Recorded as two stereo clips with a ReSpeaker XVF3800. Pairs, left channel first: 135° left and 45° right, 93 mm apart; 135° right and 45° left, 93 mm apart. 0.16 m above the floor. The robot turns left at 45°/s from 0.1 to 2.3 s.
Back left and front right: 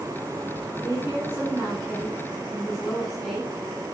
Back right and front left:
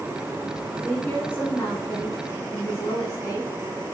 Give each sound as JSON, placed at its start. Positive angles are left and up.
{"t": 0.8, "sound": "a woman speaking", "azimuth_deg": -65, "distance_m": 1.8}